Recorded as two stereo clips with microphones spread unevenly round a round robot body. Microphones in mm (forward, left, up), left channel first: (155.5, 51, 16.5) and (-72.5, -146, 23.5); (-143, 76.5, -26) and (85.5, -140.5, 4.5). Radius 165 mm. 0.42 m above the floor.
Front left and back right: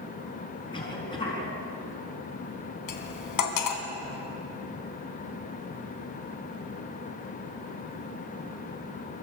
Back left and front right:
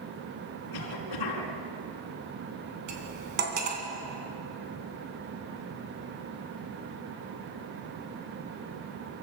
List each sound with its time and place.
0.7 s a cough: 115° left, 4 m
2.9 s cutlery clinking: 20° left, 2.5 m